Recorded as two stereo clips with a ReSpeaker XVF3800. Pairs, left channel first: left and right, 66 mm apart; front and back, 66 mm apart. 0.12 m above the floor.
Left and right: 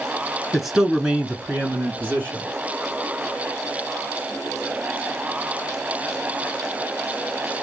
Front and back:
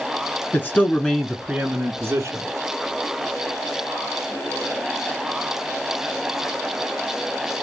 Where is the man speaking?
Straight ahead, 1.2 m; by 2.5 s 140° right, 1.6 m.